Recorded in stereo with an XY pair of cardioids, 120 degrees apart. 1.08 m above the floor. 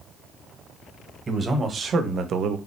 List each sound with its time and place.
1.3 s a man speaking: 25° right, 1.1 m; by 2.6 s 75° right, 0.5 m